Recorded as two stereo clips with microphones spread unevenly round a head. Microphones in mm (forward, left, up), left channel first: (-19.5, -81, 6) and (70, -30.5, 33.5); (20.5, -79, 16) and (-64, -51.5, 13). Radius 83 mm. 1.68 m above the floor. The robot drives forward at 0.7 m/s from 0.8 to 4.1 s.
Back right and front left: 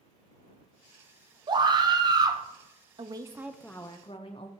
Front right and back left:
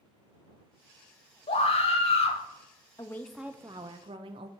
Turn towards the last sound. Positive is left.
turn(degrees=145)